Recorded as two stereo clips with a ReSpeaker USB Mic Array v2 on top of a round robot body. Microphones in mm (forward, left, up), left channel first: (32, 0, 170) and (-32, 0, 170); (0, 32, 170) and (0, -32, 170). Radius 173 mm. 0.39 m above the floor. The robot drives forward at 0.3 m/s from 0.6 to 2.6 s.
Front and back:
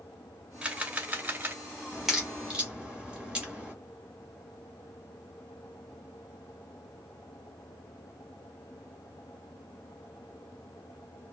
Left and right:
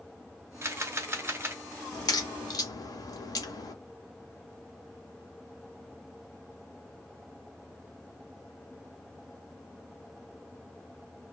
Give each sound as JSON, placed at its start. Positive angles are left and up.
{"t": 0.6, "sound": "a camera shutter", "azimuth_deg": -110, "distance_m": 0.9}
{"t": 1.9, "sound": "a crack", "azimuth_deg": 95, "distance_m": 0.9}